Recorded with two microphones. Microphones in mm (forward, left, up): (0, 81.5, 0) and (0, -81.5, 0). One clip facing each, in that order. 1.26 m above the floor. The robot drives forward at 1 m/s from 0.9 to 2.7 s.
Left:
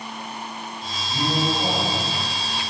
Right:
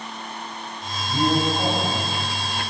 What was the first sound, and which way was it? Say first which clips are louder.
A man speaking: right 3 dB; 25° right (ahead or behind).